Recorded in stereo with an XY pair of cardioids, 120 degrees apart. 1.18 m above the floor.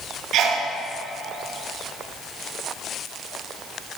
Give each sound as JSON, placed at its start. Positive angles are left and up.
{"t": 0.3, "sound": "a sneeze", "azimuth_deg": -65, "distance_m": 1.2}